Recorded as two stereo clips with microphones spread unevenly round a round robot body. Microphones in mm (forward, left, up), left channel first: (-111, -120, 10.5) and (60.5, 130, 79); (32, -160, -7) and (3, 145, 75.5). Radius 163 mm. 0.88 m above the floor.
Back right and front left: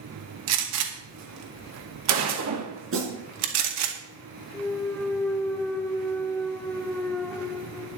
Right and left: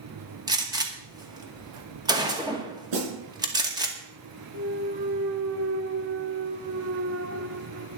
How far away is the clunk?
About 0.8 m.